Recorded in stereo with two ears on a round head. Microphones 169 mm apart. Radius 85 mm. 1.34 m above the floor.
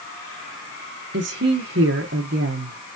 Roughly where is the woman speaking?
Right.